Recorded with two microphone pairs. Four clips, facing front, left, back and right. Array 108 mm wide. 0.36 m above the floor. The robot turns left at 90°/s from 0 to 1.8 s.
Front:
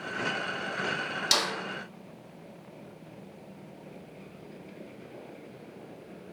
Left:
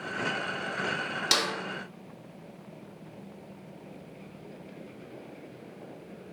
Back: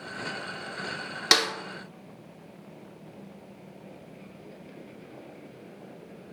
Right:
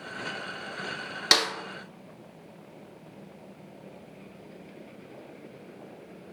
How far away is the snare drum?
About 0.8 m.